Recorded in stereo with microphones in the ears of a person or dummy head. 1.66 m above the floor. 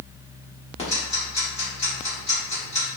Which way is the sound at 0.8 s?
35° left (ahead or behind).